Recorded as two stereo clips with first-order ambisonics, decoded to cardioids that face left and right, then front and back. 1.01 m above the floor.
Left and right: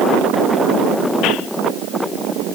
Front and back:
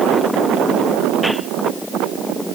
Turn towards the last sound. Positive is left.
No sound to turn to.